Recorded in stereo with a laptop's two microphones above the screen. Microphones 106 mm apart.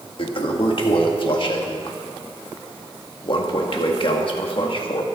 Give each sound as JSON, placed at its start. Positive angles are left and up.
{"t": 0.2, "sound": "a toilet flushing", "side_deg": 55, "distance_m": 1.5}